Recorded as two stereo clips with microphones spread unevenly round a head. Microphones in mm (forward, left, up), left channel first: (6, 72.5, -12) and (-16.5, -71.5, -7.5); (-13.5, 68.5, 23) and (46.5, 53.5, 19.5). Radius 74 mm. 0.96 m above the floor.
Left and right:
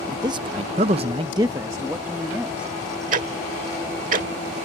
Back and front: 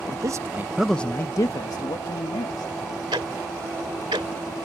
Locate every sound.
0.1 s a man speaking: 30° right; by 2.7 s straight behind
3.1 s ticking: 65° right